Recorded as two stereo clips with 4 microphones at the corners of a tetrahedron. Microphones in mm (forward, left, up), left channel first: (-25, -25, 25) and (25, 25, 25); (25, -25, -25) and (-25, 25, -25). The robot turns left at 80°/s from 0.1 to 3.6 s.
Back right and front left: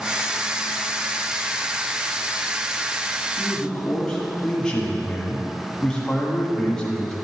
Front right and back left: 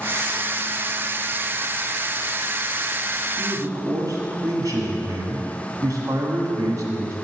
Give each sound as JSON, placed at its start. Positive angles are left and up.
{"t": 3.4, "sound": "a man speaking", "azimuth_deg": 160, "distance_m": 1.4}